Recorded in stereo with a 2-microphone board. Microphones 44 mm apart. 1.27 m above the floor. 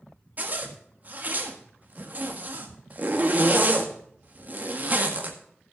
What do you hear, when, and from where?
0.4 s a zipper: 40° right (ahead or behind), 1.6 m